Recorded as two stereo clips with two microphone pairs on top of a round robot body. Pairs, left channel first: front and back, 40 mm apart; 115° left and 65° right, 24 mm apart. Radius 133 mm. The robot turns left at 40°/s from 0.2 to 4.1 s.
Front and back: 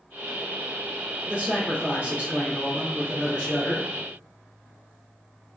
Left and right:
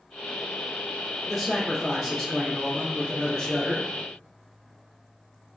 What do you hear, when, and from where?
1.3 s a man speaking: 150° right, 1.6 m; by 3.9 s 105° left, 1.6 m